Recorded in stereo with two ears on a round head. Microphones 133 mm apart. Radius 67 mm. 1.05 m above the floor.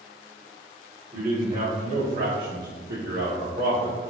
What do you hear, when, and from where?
1.1 s a man speaking: 15° right (ahead or behind), 1.0 m; by 4.0 s 50° right (ahead or behind), 1.1 m